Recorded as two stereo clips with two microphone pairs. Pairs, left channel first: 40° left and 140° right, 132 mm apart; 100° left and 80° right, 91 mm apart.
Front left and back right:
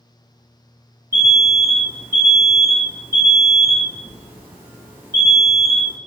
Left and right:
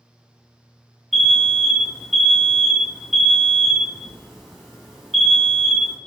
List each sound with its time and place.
1.1 s an alarm: 170° right, 0.7 m